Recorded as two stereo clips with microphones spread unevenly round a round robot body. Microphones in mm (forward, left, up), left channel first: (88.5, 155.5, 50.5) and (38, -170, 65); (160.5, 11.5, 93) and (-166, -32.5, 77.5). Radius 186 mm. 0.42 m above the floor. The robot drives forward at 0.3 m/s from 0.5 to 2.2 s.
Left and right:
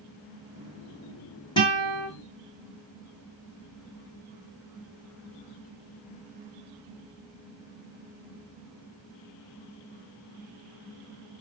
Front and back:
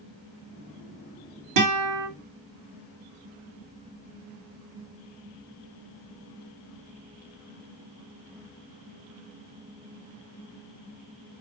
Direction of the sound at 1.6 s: 160° left.